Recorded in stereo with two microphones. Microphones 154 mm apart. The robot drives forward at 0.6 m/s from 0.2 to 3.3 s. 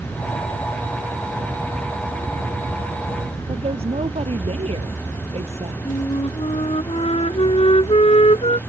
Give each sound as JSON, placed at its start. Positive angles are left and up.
{"t": 3.5, "sound": "a woman speaking", "side_deg": -45}
{"t": 5.8, "sound": "a flute", "side_deg": 45}